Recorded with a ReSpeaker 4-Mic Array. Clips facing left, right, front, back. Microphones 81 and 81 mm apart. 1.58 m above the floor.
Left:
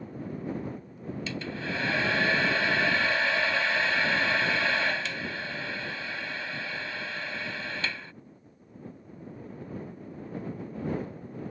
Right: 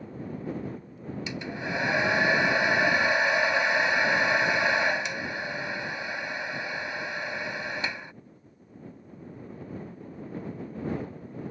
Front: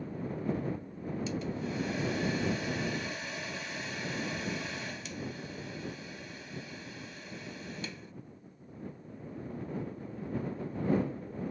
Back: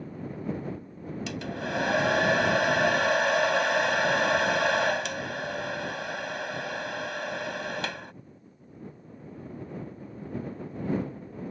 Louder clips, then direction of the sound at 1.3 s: Right 1 dB, back 5 dB; 165° right.